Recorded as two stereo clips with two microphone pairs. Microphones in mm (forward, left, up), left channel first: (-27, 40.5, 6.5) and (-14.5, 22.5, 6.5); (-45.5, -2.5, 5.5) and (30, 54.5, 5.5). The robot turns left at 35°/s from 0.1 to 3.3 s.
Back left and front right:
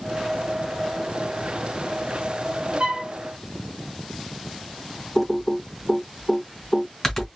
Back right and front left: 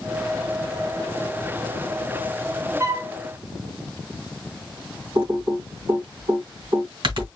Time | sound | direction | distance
2.8 | a flute | 20° right | 0.7 m
5.2 | typing on a keyboard | 55° left | 2 m